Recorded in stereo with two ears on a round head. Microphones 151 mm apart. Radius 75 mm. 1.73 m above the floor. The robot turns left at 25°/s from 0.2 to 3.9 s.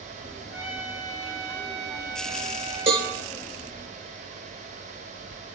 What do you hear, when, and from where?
0.5 s a trumpet: 5° right, 1.5 m; by 3.3 s 75° right, 1.5 m
2.9 s a cowbell: 35° right (ahead or behind), 1.8 m; by 3.1 s 30° right (ahead or behind), 1.8 m